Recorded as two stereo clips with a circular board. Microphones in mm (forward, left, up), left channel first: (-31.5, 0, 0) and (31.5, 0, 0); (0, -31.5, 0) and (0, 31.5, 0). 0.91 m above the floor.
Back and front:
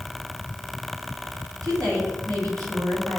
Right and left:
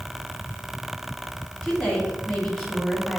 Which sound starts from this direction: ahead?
A woman speaking, at 1.6 s.